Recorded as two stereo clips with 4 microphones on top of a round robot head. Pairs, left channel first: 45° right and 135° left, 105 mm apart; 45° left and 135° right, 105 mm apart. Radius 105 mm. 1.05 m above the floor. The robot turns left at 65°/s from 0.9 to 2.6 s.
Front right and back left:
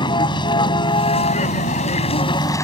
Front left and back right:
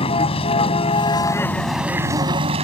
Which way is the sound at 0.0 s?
5° left.